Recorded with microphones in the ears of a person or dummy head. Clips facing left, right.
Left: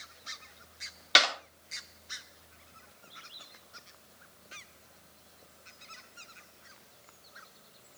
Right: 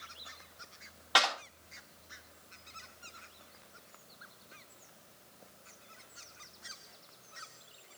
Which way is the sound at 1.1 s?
35° left (ahead or behind).